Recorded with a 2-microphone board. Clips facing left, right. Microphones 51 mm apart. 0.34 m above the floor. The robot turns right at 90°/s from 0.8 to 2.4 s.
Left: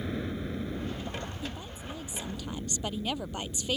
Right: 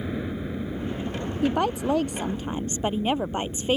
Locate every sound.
0.0 s a helicopter: 165° right; by 3.8 s 20° right
1.4 s a woman speaking: 120° right; by 3.8 s 35° right